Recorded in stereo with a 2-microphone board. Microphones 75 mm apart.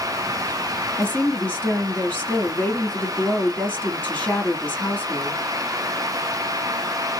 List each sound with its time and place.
1.0 s a woman speaking: 20° left (ahead or behind), 1.9 m